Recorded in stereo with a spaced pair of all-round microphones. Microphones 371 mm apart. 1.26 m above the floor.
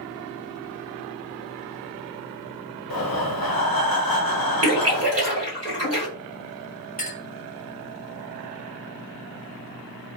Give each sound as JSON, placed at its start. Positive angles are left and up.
{"t": 2.9, "sound": "breathing", "side_deg": 70, "distance_m": 0.6}
{"t": 4.6, "sound": "a splash", "side_deg": -40, "distance_m": 1.2}
{"t": 7.0, "sound": "a clink", "side_deg": 25, "distance_m": 1.4}